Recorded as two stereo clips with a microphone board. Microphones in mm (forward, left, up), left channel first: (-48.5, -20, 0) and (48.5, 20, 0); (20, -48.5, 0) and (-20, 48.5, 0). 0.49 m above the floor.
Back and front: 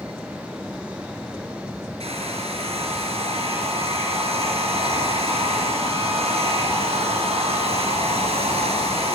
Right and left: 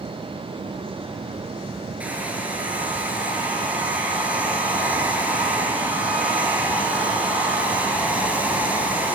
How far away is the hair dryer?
About 4.5 m.